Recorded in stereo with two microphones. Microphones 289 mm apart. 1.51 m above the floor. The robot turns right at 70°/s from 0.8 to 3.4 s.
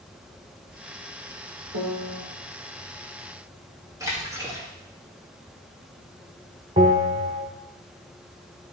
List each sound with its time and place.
1.7 s a piano: 120° right, 1.9 m; by 2.2 s 90° right, 1.9 m
4.0 s a splash: 10° right (ahead or behind), 2.5 m
6.8 s a bell: 25° right (ahead or behind), 2 m